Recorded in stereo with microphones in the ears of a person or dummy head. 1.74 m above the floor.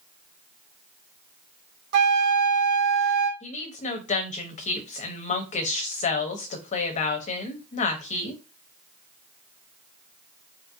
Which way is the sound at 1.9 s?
60° right (ahead or behind).